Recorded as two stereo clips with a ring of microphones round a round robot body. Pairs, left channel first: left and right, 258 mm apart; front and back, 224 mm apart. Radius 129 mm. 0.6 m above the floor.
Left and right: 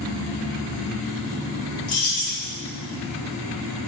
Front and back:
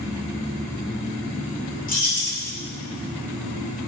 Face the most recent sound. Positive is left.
turn(degrees=55)